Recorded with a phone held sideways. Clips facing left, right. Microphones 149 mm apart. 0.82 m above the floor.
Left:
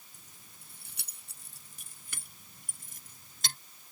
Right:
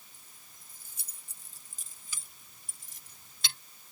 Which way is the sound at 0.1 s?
80° left.